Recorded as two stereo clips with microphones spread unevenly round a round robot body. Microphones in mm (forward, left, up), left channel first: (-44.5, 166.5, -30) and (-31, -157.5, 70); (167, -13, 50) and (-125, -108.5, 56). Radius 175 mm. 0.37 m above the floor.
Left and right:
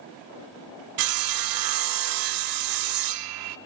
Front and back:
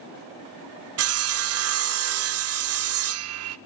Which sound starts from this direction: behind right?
Sawing, at 1.0 s.